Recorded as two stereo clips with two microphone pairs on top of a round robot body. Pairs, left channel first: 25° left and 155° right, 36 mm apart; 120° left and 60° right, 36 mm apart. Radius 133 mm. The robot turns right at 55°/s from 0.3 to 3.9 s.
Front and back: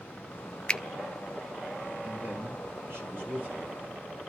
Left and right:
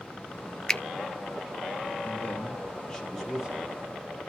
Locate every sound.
0.7 s a finger snap: 75° left, 0.7 m; by 0.8 s 80° left, 0.7 m
2.0 s a man speaking: 150° left, 5 m; by 4.2 s 110° right, 5 m